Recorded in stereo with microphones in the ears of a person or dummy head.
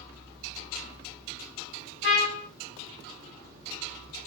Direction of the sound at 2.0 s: 40° left (ahead or behind).